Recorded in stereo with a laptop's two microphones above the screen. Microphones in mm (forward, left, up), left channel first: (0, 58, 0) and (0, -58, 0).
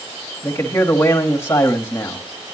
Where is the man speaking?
20° left (ahead or behind), 1.3 m.